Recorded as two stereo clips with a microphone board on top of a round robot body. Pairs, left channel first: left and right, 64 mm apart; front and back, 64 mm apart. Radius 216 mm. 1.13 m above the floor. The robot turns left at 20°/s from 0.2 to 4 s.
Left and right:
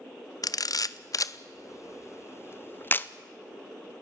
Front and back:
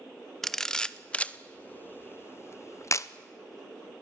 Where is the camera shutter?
85° left, 0.9 m; by 3.1 s 35° left, 0.9 m.